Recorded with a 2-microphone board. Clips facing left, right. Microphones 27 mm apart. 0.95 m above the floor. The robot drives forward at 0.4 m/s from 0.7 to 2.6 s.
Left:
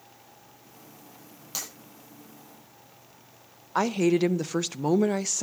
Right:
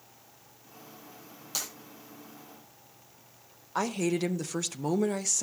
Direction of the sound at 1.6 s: 10° left (ahead or behind).